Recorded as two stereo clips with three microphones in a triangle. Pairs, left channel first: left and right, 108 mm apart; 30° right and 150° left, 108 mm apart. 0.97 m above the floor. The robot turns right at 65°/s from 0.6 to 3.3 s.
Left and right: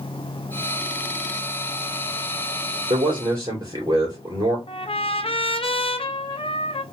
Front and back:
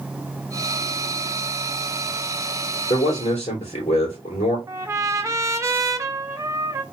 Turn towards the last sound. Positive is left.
turn(degrees=95)